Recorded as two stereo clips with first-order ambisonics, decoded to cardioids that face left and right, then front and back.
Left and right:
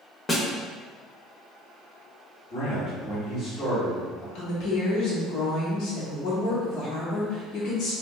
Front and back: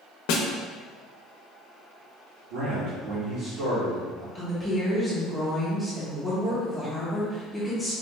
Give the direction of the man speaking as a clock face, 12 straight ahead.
7 o'clock.